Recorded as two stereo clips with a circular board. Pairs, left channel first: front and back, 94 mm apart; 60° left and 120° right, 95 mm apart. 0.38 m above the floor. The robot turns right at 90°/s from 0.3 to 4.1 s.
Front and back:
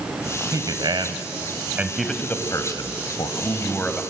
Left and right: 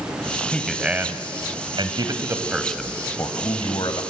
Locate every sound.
0.5 s a man speaking: 130° left, 1.9 m; by 4.0 s 85° left, 1.9 m